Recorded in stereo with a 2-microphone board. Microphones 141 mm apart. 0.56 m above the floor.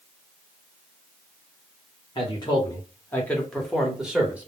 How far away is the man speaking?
About 1.1 m.